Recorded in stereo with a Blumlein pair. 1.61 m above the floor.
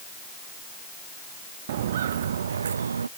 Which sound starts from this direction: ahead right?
Footsteps, at 1.7 s.